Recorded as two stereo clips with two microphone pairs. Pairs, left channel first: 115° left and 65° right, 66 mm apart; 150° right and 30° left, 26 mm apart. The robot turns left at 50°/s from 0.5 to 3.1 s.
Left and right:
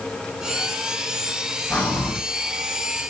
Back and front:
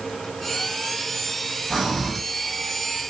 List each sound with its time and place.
1.7 s breathing: 120° left, 1.6 m; by 2.2 s 95° left, 1.6 m